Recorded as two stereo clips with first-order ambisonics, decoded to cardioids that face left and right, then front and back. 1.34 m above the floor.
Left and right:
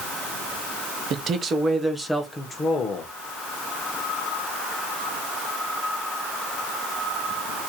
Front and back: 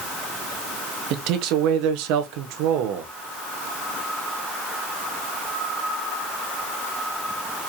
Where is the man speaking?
145° right, 1.0 m; by 3.1 s 150° left, 1.1 m.